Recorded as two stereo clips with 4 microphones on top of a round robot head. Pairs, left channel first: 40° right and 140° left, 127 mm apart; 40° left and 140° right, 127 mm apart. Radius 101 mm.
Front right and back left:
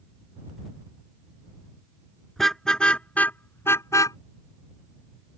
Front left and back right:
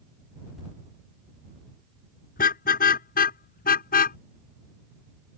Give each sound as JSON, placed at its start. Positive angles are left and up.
{"t": 2.4, "sound": "a car horn", "azimuth_deg": 50}